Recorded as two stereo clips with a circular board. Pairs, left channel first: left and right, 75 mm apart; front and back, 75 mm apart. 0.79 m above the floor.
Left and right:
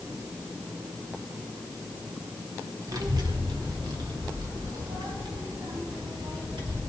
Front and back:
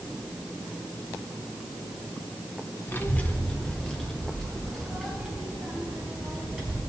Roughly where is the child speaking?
Ahead right.